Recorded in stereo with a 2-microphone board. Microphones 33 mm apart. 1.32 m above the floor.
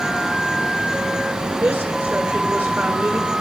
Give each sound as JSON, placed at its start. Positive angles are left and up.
{"t": 1.6, "sound": "a woman speaking", "side_deg": -60, "distance_m": 6.0}